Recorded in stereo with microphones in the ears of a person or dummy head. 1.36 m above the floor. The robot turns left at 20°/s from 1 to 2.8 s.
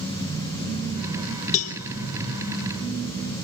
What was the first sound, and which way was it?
A cowbell, 40° left (ahead or behind).